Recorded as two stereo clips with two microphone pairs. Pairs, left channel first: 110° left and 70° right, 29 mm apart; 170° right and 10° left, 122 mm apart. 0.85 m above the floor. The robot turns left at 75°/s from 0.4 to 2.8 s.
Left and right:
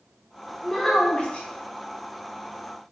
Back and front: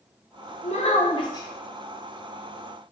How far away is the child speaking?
About 0.7 m.